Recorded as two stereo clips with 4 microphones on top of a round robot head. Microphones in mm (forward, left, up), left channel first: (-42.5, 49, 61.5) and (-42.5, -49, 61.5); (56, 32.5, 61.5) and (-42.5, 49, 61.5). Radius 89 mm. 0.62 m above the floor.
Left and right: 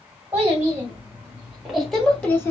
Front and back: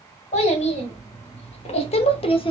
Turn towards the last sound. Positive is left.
turn(degrees=25)